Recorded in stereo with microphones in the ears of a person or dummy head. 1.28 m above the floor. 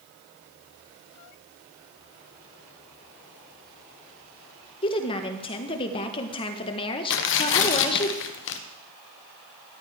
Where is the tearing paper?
65° left (ahead or behind), 1.0 m.